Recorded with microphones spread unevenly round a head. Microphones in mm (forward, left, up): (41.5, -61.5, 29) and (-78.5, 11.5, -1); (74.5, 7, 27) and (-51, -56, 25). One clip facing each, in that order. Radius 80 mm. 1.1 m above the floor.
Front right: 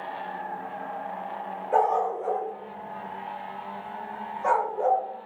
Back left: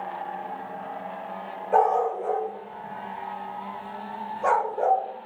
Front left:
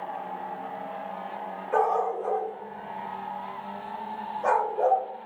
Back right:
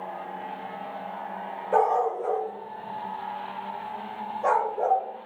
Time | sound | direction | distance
1.7 | a dog barking | 115° right | 1.3 m